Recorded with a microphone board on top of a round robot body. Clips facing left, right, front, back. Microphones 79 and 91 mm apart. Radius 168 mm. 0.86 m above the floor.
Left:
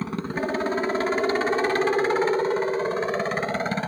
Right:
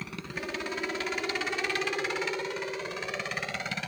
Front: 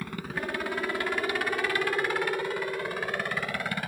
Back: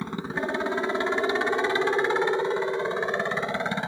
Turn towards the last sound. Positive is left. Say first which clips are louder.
# left 10 dB, back 5 dB
turn(degrees=120)